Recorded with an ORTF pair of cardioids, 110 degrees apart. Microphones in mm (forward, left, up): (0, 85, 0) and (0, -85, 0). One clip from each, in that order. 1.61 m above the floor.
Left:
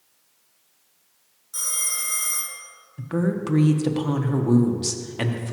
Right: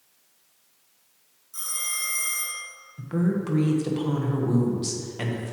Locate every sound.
1.5 s a phone ringing: 40° left, 1.5 m
3.0 s a woman speaking: 25° left, 0.9 m